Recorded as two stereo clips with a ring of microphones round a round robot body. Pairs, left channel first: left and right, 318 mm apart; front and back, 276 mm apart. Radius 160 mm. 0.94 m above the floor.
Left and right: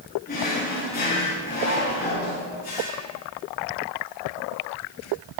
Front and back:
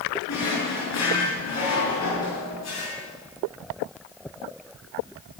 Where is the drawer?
25° left, 6.5 m.